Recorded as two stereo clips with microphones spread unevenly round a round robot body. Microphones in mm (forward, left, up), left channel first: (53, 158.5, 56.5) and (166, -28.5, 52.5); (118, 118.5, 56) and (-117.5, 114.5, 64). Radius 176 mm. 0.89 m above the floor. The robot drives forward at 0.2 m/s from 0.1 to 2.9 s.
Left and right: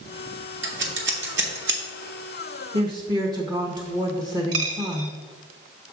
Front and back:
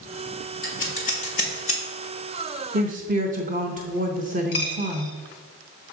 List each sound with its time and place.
0.6 s scissors: 50° right, 1.4 m; by 1.8 s 60° right, 1.3 m
2.7 s a woman speaking: 125° right, 0.5 m; by 5.2 s 130° right, 0.6 m
4.5 s a dropped coin: 50° right, 1.1 m